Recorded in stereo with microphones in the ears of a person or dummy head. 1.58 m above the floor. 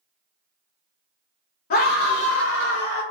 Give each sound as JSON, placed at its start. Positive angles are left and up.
{"t": 1.7, "sound": "a scream", "side_deg": 35, "distance_m": 0.8}